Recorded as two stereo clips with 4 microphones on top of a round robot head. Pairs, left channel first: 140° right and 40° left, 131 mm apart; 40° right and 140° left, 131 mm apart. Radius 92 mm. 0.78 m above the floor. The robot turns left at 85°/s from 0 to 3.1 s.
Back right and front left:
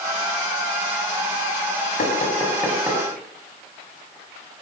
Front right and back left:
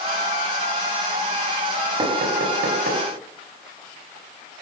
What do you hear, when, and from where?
2.0 s knocking: 165° right, 5.5 m; by 3.0 s 105° left, 5.5 m